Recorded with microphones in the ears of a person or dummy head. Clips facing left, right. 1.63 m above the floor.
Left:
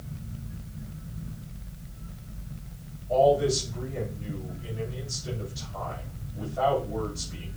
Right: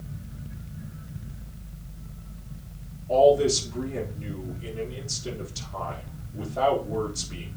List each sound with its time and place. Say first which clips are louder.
3.1 s a man speaking: right 3 dB; 80° right, 3.5 m